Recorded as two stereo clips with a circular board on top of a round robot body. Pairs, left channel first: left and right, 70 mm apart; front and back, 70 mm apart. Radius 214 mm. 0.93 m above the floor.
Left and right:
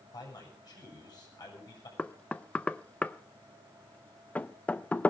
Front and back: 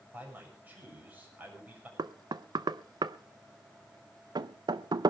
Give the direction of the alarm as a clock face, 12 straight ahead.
No alarm in this recording.